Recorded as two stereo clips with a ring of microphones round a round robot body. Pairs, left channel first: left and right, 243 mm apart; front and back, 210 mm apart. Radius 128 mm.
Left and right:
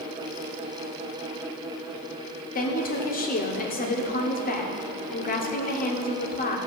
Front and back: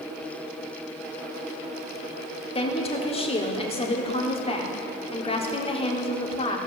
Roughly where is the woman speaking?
Ahead left.